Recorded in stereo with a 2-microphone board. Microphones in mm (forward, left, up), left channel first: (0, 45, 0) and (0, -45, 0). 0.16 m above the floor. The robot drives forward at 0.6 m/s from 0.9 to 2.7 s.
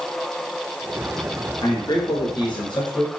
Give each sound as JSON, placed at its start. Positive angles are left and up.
{"t": 1.6, "sound": "a man speaking", "side_deg": 55, "distance_m": 2.5}